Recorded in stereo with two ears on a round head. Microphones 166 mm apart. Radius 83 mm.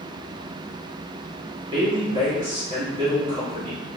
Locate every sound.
1.7 s a woman speaking: 25° right (ahead or behind), 1.8 m